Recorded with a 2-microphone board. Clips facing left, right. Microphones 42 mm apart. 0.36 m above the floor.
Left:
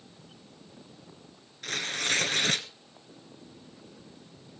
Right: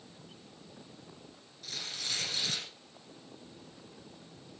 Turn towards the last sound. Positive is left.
turn(degrees=65)  # may be behind; listen again after turning